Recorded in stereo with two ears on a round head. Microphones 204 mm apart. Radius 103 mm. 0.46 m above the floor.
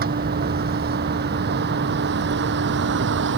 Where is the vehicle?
45° right (ahead or behind); by 3.4 s 60° right (ahead or behind).